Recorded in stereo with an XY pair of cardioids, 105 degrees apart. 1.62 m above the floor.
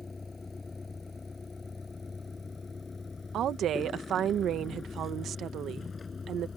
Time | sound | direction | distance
0.0 | a vehicle | 25° left | ?
3.3 | a woman speaking | 70° right | ?